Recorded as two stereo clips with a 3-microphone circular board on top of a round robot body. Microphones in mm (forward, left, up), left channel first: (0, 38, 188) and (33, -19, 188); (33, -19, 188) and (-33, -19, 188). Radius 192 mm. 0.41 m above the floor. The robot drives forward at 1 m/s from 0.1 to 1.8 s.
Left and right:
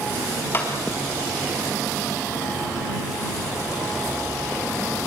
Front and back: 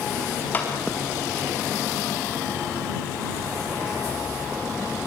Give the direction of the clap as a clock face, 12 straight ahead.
10 o'clock.